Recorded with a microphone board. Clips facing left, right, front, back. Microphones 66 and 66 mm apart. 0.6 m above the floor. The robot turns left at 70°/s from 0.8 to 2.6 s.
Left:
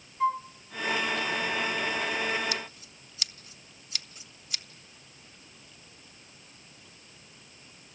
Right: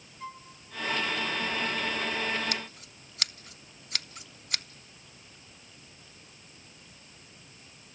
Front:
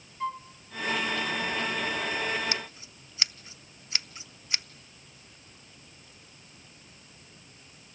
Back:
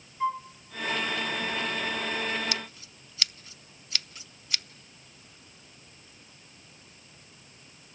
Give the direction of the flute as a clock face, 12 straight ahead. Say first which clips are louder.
Left 16 dB, back 4 dB; 9 o'clock.